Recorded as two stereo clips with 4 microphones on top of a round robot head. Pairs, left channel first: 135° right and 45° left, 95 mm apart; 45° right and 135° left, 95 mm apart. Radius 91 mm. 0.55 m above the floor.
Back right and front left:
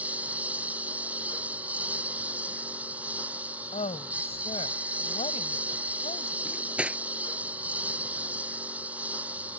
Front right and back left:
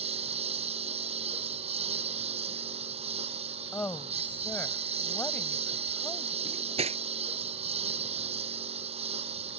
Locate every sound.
0.0 s a lawn mower: 120° left
3.7 s a woman speaking: 120° right
6.5 s cutlery clinking: 120° left